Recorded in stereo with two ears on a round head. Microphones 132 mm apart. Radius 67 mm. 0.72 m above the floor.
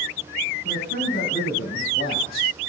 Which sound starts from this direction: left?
A man speaking, at 0.7 s.